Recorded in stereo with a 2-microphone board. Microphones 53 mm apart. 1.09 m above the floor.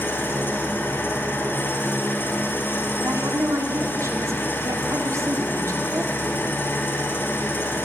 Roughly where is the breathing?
No breathing in this recording.